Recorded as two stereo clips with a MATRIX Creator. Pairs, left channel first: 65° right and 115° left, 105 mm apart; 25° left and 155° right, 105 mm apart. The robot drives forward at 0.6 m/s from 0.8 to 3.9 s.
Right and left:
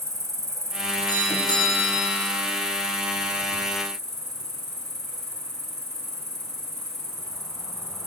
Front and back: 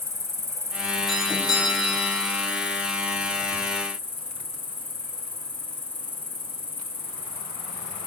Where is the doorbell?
70° right, 2.5 m; by 2.2 s 90° right, 2.5 m.